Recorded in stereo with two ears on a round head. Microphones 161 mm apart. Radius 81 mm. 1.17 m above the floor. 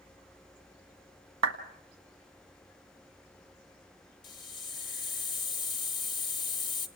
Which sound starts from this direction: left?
A hiss, at 4.2 s.